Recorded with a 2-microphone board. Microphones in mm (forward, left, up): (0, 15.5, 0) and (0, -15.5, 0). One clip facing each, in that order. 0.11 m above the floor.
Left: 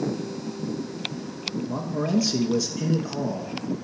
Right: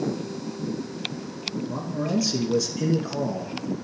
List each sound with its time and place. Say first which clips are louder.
1.7 s a man speaking: left 2 dB; 25° left (ahead or behind), 1.2 m; by 3.8 s 25° right (ahead or behind), 1.4 m